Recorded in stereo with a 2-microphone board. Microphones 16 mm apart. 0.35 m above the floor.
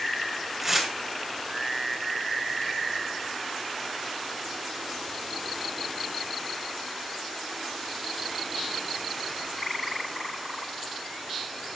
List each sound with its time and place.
0.6 s tearing paper: 15° right (ahead or behind), 5 m